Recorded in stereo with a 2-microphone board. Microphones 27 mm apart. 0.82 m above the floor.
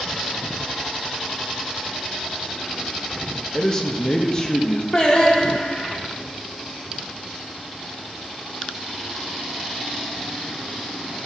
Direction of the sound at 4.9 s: 35° left (ahead or behind).